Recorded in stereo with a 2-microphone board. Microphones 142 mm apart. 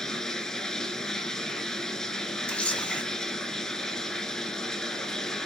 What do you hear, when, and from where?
0.0 s running water: 5° left (ahead or behind), 0.7 m
2.5 s a camera shutter: 10° left (ahead or behind), 1.4 m